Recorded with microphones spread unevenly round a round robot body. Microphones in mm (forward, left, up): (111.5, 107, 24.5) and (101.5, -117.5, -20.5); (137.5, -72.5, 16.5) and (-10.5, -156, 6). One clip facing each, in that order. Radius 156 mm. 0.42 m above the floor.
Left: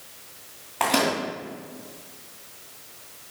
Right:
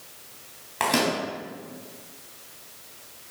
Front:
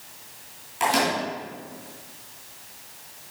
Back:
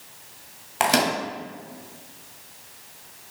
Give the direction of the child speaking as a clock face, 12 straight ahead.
No child speaking in this recording.